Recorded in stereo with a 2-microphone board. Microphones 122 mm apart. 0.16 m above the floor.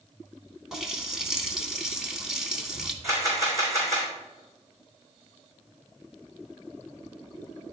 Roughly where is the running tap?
Centre.